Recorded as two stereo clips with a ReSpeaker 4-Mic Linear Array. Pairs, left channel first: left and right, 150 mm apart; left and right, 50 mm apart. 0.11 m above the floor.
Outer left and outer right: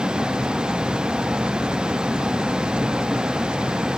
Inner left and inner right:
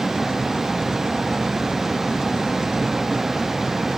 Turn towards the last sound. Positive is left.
turn(degrees=-5)  # may be behind; listen again after turning